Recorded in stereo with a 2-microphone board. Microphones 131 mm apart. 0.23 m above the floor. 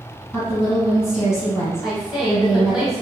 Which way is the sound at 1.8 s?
5° right (ahead or behind).